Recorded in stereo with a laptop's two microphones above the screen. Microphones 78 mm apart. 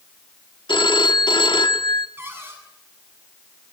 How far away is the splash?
No splash in this recording.